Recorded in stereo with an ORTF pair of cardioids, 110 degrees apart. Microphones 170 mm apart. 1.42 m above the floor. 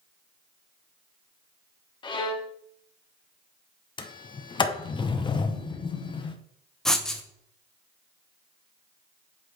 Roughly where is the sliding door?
Ahead left.